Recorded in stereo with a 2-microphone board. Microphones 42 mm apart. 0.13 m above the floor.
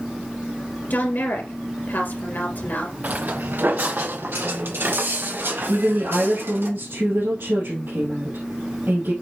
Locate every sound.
0.9 s a woman speaking: 55° left (ahead or behind), 2.5 m
3.0 s footsteps: 45° right (ahead or behind), 0.9 m; by 6.7 s 70° right (ahead or behind), 3 m
5.7 s a woman speaking: 65° right (ahead or behind), 3 m